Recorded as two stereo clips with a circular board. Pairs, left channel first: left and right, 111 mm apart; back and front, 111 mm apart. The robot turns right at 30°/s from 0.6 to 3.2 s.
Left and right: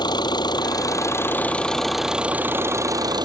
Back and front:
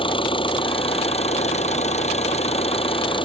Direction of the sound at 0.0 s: 140° left.